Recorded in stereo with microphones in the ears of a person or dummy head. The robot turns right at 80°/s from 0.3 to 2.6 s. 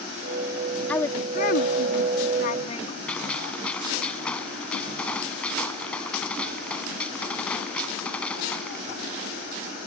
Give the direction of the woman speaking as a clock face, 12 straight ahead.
12 o'clock.